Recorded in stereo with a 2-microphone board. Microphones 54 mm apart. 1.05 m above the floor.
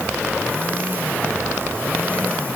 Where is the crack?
No crack in this recording.